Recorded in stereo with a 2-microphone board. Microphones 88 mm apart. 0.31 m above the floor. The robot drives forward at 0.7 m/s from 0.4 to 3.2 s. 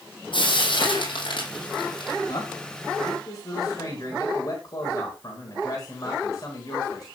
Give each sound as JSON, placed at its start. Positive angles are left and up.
{"t": 0.3, "sound": "frying", "side_deg": 70, "distance_m": 7.5}
{"t": 2.3, "sound": "a man speaking", "side_deg": 45, "distance_m": 3.5}